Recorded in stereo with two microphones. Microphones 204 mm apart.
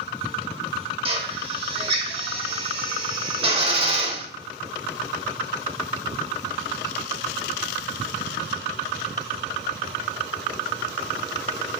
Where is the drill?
30° right (ahead or behind), 0.9 m.